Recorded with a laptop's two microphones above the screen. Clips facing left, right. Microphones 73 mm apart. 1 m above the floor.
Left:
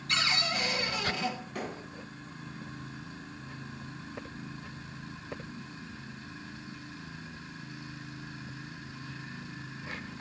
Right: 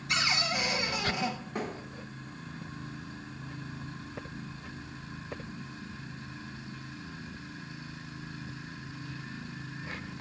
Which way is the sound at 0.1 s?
15° right (ahead or behind).